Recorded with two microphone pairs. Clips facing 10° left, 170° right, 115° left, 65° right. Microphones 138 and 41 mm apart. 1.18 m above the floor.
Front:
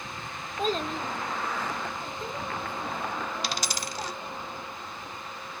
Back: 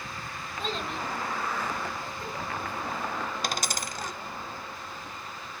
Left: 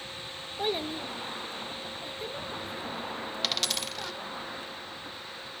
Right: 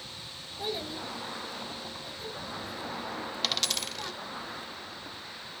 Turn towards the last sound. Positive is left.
turn(degrees=-160)